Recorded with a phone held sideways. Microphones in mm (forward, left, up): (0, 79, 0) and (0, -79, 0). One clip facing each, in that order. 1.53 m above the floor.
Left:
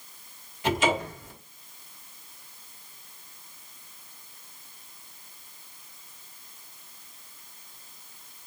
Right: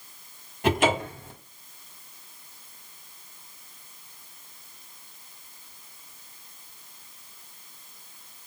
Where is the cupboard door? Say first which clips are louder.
Right 2 dB; 55° right (ahead or behind), 1.5 m.